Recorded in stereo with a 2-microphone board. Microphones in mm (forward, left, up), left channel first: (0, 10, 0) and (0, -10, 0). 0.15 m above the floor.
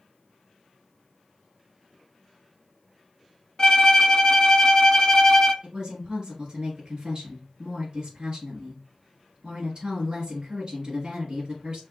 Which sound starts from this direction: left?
A violin, at 3.6 s.